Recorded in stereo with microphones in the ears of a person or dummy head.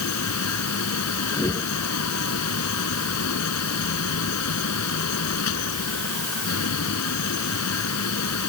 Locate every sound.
0.0 s a fan: 85° left
1.3 s a whoosh: 15° left (ahead or behind)